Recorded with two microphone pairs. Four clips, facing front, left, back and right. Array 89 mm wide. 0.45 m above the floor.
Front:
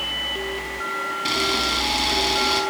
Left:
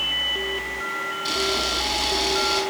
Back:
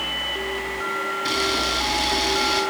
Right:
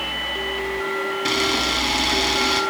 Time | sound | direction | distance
1.2 | a camera shutter | 80° right | 4.5 m